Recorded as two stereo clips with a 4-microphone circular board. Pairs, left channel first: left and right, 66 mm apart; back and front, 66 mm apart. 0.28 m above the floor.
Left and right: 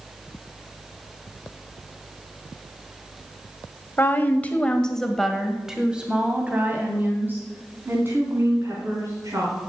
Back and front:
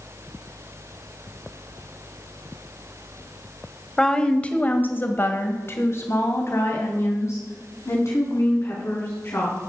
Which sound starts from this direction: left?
A woman speaking, at 4.0 s.